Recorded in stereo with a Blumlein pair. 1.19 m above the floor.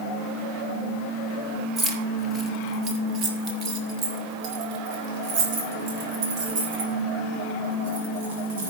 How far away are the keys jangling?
About 2.0 m.